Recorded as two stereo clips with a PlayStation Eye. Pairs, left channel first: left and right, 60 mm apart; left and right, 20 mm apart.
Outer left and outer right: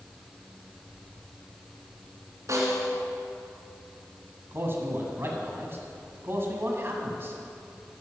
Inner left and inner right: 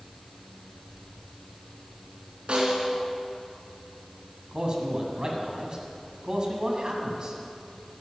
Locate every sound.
2.5 s a snare drum: 60° right (ahead or behind), 3 m
4.5 s a man speaking: 40° right (ahead or behind), 1.8 m